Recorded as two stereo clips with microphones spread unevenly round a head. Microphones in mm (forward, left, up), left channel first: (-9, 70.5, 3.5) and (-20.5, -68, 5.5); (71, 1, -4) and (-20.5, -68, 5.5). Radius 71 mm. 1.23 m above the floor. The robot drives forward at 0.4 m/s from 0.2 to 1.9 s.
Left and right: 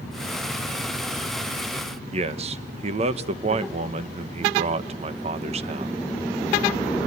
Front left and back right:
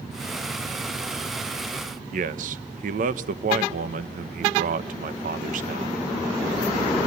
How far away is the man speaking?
About 1.2 m.